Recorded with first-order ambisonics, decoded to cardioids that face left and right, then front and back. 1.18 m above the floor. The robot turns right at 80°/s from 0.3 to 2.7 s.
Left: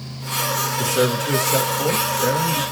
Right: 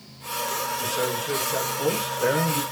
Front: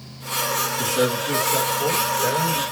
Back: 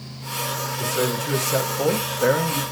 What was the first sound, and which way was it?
A man speaking, 80° left.